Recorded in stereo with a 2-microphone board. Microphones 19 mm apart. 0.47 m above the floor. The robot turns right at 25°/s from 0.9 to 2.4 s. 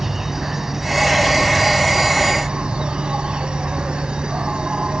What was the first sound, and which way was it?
An insect, 160° right.